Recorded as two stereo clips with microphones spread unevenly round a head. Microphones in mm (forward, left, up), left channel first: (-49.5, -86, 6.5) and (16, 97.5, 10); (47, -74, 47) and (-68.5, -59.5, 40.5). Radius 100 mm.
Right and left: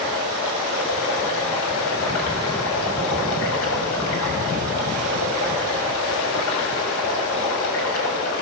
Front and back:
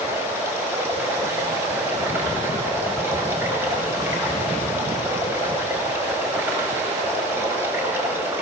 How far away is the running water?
About 6 m.